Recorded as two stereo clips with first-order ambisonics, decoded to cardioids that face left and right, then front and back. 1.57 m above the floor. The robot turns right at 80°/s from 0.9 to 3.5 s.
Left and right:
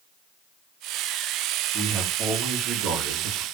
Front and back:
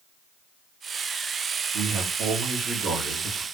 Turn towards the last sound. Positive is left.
turn(degrees=-60)